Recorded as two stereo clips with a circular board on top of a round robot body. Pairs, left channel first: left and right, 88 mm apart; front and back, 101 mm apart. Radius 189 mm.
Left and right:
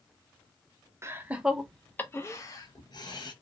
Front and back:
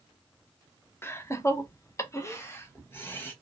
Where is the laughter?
50° right, 0.8 m; by 3.3 s 65° left, 1.3 m.